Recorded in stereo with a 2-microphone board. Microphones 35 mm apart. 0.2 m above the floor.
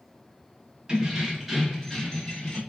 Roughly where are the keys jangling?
Right.